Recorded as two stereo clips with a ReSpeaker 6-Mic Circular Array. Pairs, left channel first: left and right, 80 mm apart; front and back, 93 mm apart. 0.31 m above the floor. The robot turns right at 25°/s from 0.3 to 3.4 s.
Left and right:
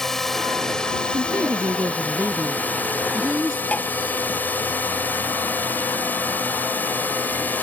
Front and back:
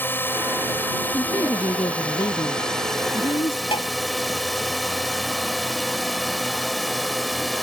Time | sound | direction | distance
0.0 | a drone | 10° left | ?
1.0 | a woman speaking | 60° right | ?
3.7 | tapping | 20° left | ?